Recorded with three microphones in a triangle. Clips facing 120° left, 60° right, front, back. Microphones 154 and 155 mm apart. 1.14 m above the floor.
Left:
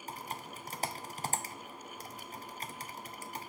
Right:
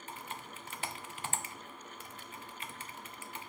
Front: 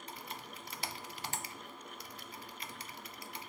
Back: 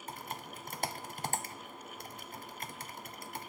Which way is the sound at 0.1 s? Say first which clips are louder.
Left 3 dB, back 5 dB; 160° left.